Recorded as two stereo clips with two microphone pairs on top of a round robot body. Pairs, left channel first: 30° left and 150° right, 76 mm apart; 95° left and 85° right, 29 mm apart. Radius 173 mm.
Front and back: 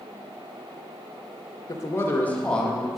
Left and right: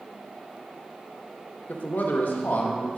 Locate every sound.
1.7 s a man speaking: 75° left, 0.9 m; by 3.0 s 120° left, 1.3 m